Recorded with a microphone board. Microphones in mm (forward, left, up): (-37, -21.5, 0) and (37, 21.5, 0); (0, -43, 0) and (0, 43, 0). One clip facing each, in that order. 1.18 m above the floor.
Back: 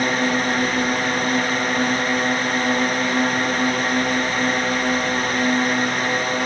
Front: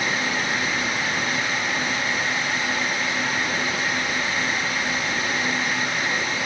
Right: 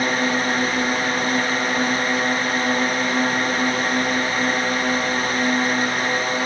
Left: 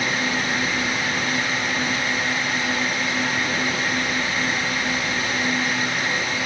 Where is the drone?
125° right.